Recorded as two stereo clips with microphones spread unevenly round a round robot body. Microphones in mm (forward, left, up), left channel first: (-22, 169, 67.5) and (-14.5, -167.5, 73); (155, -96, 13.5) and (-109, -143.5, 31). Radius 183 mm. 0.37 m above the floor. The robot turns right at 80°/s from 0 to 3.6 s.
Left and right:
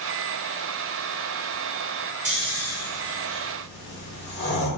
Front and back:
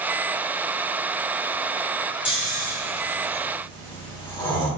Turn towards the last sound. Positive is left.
turn(degrees=70)